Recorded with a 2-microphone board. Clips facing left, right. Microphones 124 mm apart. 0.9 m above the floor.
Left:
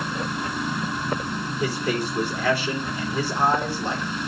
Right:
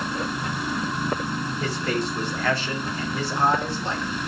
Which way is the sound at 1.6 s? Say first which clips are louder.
Left 2 dB; 10° left (ahead or behind).